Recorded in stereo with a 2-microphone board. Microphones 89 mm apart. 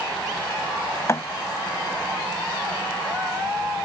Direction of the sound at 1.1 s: 35° left (ahead or behind).